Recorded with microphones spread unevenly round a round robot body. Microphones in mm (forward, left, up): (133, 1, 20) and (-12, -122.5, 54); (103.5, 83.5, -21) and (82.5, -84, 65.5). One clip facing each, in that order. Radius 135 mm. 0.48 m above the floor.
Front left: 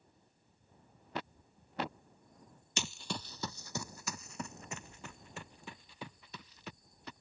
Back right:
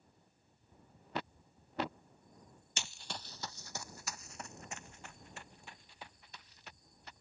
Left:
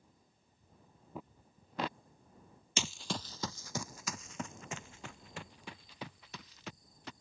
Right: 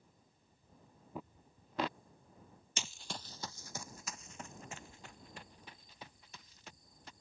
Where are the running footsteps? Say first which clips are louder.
Front left 7 dB, left 8 dB; 60° left; by 7.1 s 75° left.